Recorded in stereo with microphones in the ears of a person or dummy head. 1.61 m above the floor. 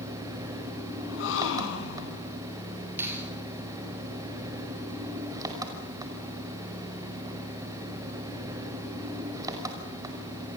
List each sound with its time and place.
0.0 s an engine running: 20° right (ahead or behind), 5 m
1.0 s a gasp: 75° left (ahead or behind), 5 m
3.0 s a finger snap: 15° right (ahead or behind), 7.5 m